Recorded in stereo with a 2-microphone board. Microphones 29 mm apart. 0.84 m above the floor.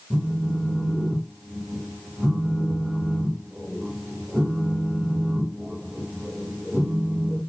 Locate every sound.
0.1 s a phone buzzing: 25° right (ahead or behind), 1.9 m